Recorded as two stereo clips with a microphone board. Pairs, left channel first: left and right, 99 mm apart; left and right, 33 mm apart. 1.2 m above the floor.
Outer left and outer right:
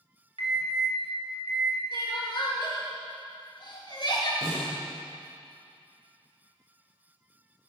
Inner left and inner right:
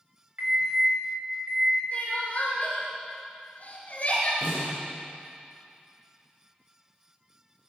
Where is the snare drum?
80° right, 7 m.